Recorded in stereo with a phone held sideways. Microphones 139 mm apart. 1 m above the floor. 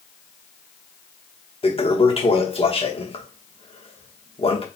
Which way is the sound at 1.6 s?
45° left (ahead or behind).